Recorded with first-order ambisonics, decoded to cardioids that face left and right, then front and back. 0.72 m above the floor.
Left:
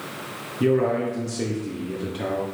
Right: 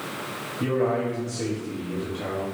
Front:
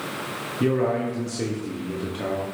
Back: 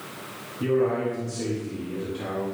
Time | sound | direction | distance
0.6 | a man speaking | 35° left | 1.0 m